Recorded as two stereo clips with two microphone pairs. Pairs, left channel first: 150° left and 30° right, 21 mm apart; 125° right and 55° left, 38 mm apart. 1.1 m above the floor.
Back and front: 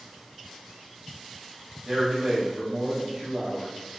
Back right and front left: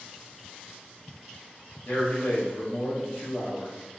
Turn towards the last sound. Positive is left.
turn(degrees=-100)